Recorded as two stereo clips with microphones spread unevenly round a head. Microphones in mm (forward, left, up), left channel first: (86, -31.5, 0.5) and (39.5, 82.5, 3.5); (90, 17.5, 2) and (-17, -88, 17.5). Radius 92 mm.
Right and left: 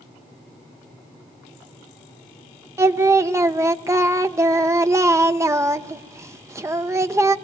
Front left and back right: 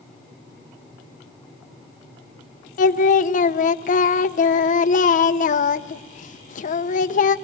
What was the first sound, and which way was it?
Singing, 45° left.